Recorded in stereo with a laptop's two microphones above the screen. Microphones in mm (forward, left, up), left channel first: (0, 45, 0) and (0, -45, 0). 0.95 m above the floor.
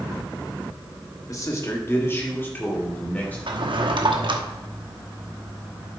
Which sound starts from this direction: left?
A man speaking, at 1.3 s.